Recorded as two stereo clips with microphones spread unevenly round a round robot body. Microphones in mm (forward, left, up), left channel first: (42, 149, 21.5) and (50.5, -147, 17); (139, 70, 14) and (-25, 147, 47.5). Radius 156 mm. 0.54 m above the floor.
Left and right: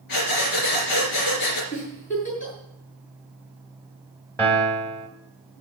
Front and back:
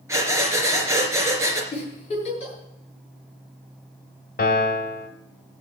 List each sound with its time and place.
0.1 s breathing: 85° left, 3 m
1.7 s a giggle: 30° left, 7 m
4.4 s a piano: 10° left, 1.7 m